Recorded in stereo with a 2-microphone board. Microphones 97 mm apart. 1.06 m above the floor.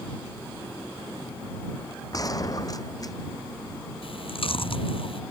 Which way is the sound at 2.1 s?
40° left (ahead or behind).